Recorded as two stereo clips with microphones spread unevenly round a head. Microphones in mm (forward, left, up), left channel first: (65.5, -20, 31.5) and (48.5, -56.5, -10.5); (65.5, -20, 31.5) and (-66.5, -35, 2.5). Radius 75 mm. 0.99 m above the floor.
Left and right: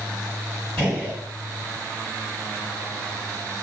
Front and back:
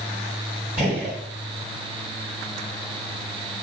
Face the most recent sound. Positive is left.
turn(degrees=105)